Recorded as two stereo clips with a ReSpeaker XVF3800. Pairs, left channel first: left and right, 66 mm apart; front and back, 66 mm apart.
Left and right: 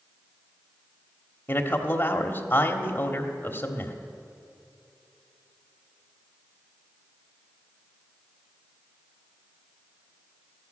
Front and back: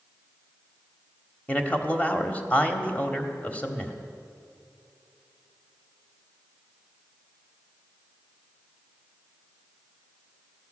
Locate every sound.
1.5 s a man speaking: 55° left, 1.3 m